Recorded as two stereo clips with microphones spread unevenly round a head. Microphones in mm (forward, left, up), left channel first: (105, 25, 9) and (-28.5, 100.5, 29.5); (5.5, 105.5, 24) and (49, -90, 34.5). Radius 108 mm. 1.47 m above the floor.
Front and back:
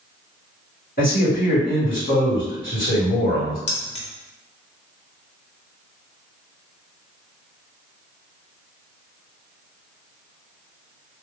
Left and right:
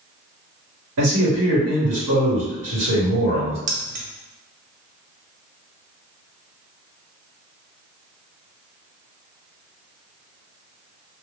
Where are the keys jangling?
70° right, 0.5 m.